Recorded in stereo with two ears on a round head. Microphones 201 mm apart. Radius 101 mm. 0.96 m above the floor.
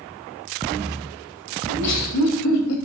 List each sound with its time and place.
1.7 s laughter: 85° left, 4 m; by 2.8 s 65° left (ahead or behind), 4 m